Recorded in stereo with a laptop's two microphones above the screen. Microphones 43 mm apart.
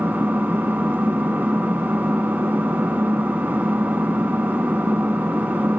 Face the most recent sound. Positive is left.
turn(degrees=-45)  # may be behind; listen again after turning